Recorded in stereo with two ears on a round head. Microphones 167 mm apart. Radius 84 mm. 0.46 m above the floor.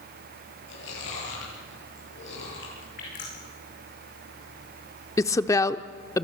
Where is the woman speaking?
15° left (ahead or behind), 0.8 m.